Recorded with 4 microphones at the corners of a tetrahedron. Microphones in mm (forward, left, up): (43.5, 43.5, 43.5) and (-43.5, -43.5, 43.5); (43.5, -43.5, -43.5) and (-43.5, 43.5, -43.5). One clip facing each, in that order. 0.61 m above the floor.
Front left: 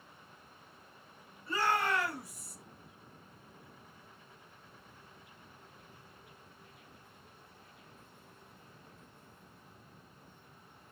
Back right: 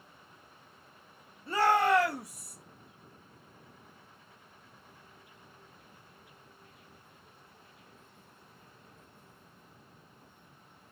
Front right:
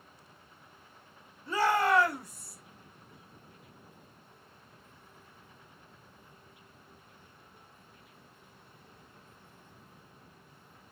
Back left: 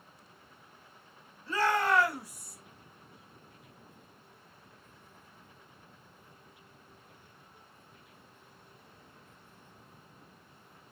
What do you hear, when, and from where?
1.5 s a shout: 95° right, 1.1 m; by 2.6 s 165° right, 0.7 m